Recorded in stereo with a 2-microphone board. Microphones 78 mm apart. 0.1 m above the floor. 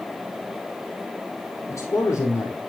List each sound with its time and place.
1.7 s a man speaking: 30° left (ahead or behind), 4 m